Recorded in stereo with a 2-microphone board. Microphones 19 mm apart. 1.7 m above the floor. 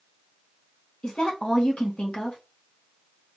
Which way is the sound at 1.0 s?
55° left (ahead or behind).